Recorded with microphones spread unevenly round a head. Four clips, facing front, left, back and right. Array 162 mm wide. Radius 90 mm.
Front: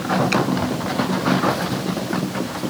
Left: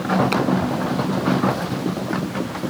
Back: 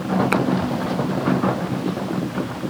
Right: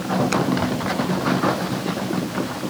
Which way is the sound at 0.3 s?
160° left.